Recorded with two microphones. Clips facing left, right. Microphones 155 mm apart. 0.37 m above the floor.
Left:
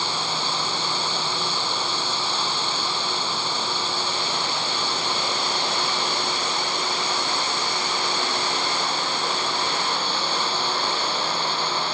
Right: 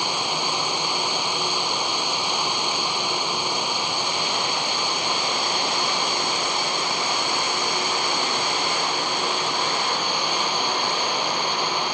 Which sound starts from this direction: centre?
Running water, at 0.0 s.